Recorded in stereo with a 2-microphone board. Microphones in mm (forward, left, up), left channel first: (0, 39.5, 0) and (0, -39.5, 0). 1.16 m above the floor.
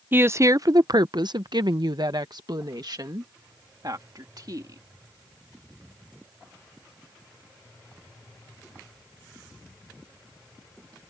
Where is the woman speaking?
25° right (ahead or behind); by 4.8 s 50° right (ahead or behind).